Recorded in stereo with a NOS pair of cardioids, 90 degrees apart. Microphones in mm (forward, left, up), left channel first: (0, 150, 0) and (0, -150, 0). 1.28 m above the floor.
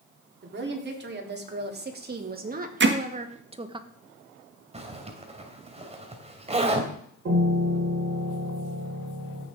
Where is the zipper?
20° right, 2.5 m.